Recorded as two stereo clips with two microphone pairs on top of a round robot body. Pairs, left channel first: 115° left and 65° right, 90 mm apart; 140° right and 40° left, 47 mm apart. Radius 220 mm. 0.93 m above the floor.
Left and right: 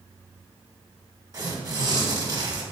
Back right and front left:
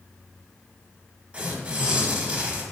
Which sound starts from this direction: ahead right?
Tearing paper, at 1.3 s.